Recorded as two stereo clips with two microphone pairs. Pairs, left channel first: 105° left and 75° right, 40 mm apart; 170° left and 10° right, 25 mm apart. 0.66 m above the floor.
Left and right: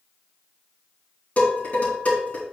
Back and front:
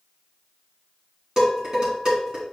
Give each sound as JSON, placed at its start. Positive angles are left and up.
{"t": 1.4, "sound": "dishes clattering", "azimuth_deg": 55, "distance_m": 4.0}